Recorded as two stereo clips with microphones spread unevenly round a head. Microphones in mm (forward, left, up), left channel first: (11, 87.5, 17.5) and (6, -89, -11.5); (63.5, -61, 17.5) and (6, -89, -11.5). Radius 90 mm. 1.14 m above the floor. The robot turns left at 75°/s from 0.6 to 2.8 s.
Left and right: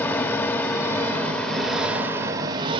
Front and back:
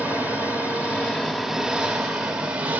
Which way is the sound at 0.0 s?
105° left.